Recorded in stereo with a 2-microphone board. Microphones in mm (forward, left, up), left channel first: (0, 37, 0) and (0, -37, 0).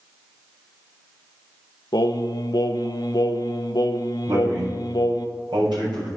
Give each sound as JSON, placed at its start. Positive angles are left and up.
{"t": 1.9, "sound": "singing", "side_deg": 65, "distance_m": 0.7}
{"t": 4.3, "sound": "a man speaking", "side_deg": -85, "distance_m": 5.5}